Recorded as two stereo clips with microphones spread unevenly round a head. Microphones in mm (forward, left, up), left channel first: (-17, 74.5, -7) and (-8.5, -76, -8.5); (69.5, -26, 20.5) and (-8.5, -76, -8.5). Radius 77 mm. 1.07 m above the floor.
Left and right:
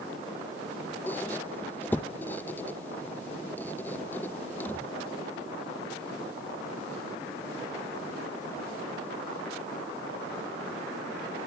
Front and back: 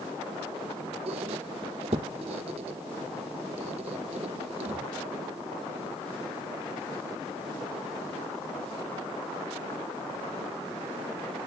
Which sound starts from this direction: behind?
A squeak, at 1.1 s.